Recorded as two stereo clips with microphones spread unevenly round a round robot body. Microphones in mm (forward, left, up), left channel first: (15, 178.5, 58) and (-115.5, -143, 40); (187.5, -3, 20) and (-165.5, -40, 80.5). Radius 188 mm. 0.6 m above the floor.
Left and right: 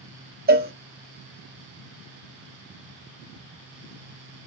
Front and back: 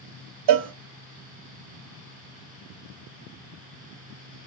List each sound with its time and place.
0.5 s a cowbell: 170° right, 0.6 m